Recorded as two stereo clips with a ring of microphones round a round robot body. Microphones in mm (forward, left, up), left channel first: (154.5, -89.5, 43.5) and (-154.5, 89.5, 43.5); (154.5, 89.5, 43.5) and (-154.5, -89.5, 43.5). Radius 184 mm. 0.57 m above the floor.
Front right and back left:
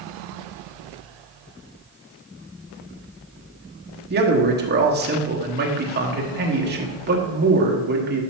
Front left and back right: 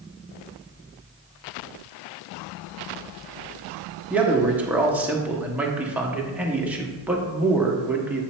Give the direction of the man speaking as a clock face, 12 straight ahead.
8 o'clock.